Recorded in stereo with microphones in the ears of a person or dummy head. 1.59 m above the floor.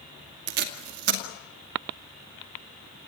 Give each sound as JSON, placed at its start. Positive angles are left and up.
{"t": 0.5, "sound": "tape being pulled", "side_deg": -65, "distance_m": 2.0}